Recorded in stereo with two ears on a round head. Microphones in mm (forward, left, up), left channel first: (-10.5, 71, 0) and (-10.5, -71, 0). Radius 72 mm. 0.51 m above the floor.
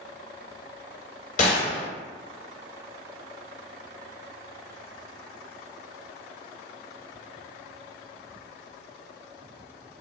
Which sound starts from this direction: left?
A gunshot, at 1.4 s.